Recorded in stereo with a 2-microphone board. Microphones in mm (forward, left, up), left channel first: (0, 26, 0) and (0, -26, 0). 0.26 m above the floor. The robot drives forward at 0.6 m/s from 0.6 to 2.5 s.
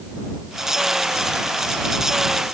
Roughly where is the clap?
No clap in this recording.